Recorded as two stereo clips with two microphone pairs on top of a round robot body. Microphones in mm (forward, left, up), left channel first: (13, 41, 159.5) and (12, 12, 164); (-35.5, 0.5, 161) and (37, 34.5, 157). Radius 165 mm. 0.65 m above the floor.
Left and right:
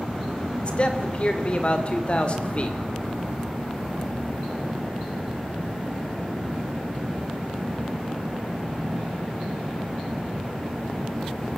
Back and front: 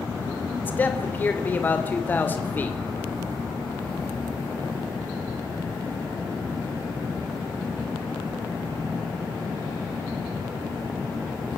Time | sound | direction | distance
0.6 | a man speaking | 135° left | 3 m